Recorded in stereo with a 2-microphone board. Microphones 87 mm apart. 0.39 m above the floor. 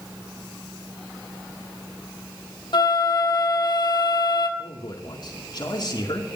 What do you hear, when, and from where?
2.7 s a flute: 55° left (ahead or behind), 2.0 m
4.6 s a man speaking: 55° left (ahead or behind), 4.5 m